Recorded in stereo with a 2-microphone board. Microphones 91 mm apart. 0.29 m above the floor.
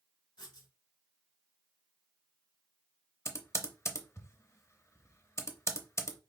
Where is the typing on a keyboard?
30° left (ahead or behind), 0.6 m.